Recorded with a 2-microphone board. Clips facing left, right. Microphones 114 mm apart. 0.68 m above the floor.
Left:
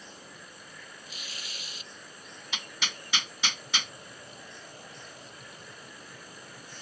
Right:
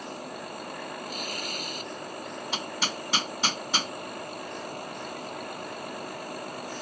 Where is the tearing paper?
55° right (ahead or behind).